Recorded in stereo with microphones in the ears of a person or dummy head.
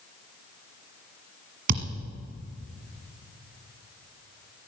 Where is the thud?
45° right (ahead or behind), 1.5 m.